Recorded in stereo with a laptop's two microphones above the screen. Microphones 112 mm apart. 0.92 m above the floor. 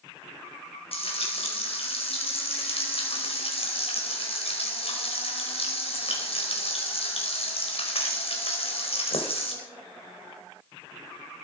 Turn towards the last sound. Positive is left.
turn(degrees=60)  # may be behind; listen again after turning